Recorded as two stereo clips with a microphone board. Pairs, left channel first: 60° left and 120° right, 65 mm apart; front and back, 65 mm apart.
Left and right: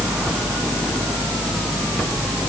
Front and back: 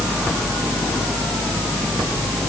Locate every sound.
Only background noise.